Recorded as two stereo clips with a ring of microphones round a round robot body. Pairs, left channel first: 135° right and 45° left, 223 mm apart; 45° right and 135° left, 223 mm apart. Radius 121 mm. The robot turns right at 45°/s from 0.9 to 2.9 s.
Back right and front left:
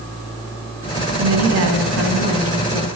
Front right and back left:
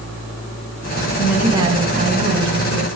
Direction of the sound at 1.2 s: 45° left.